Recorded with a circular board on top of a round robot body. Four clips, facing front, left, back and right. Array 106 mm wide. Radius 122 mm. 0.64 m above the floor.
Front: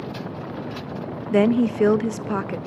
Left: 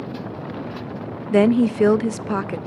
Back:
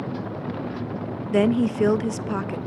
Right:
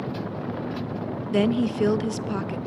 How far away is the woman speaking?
About 0.5 m.